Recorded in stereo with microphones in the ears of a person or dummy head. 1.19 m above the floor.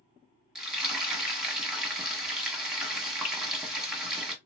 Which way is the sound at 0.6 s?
Centre (ahead or behind).